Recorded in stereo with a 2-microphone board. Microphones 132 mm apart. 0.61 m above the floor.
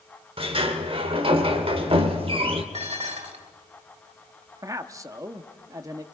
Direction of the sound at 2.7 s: 55° right (ahead or behind).